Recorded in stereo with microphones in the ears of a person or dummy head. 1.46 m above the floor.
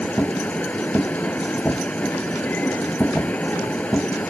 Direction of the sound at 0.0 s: 5° left (ahead or behind).